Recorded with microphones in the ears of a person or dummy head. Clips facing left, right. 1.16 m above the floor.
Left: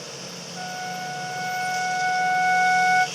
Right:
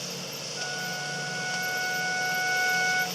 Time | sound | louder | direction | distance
0.6 | a flute | left 7 dB | 55° left (ahead or behind) | 1.5 m